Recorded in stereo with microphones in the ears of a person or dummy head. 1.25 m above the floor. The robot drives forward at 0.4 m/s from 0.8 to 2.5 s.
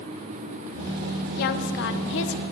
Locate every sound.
1.4 s a woman speaking: 45° left (ahead or behind), 0.8 m; by 2.4 s 65° left (ahead or behind), 0.7 m